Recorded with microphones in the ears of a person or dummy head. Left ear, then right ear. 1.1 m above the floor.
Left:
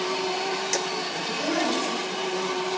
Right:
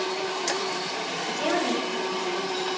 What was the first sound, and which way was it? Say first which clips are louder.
A woman speaking: right 1 dB; 45° right (ahead or behind).